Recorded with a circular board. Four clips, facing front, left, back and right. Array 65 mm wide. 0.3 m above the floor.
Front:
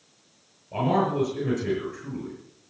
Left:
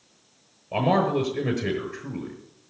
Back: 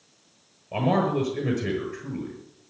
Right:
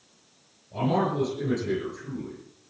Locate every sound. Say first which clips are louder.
0.7 s a man speaking: left 4 dB, even; 110° left, 6.5 m